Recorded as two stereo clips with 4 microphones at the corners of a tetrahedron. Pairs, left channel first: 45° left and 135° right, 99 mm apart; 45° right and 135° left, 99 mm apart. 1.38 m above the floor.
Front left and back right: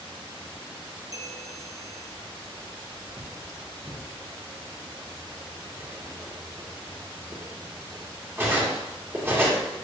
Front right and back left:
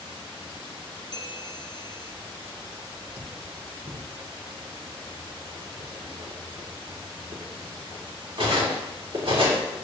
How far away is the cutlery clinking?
About 2 m.